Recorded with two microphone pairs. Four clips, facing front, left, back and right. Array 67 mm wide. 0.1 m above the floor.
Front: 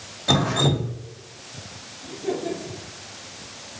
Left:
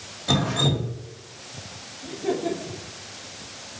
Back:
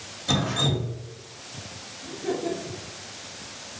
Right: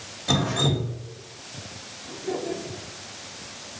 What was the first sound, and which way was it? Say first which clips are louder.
Dripping: left 1 dB, front 5 dB; straight ahead.